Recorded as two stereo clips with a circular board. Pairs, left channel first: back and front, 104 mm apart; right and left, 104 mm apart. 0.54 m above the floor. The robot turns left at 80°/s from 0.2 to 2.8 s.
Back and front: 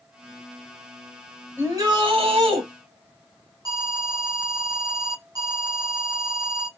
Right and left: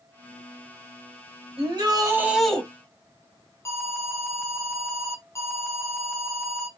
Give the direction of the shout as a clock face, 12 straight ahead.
10 o'clock.